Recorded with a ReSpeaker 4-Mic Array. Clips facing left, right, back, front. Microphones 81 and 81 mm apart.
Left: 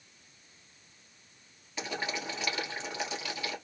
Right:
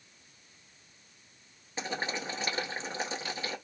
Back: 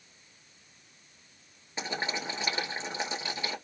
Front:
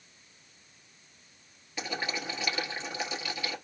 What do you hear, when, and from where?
1.8 s boiling: 135° right, 1.6 m